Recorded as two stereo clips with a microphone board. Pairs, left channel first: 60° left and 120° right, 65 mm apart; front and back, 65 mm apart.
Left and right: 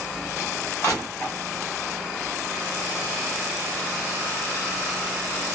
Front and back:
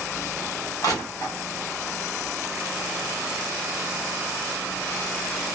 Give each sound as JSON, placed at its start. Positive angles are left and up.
{"t": 0.8, "sound": "crushing", "azimuth_deg": 15, "distance_m": 2.5}